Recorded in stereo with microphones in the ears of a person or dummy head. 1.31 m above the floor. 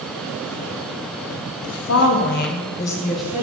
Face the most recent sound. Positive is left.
turn(degrees=-5)  # may be behind; listen again after turning